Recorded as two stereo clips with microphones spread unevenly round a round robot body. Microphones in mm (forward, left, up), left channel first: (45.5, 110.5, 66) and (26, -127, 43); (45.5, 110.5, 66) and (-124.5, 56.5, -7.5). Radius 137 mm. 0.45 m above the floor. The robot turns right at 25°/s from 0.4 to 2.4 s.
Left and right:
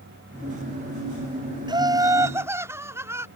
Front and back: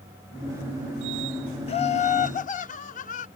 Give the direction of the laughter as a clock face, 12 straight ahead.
2 o'clock.